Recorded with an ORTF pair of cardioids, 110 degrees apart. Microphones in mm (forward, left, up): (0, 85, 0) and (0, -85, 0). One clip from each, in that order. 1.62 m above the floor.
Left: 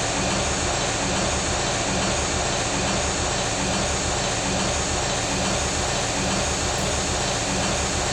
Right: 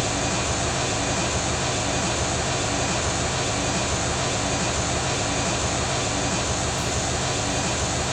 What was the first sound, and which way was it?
An engine running, 35° left.